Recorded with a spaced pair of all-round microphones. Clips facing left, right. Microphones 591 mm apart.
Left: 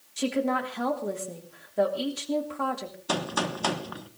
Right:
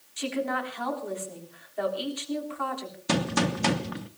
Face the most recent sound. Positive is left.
turn(degrees=-50)  # may be behind; listen again after turning